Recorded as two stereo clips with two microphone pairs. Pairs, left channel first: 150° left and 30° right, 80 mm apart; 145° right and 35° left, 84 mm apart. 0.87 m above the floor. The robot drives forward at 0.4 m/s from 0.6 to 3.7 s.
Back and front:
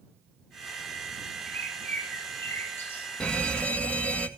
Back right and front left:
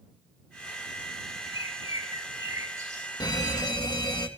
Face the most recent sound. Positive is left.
turn(degrees=-140)